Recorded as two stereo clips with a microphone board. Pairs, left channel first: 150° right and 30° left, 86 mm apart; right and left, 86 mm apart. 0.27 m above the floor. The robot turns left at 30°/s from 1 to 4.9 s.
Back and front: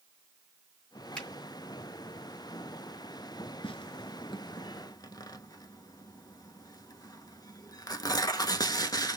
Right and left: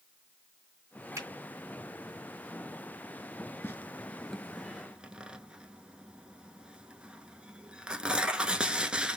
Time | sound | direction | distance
1.1 | a finger snap | 135° left | 2 m
3.6 | tearing paper | 155° right | 0.7 m